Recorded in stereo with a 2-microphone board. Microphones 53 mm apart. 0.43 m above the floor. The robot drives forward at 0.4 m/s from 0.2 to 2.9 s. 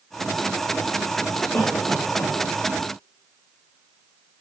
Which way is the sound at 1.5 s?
45° left (ahead or behind).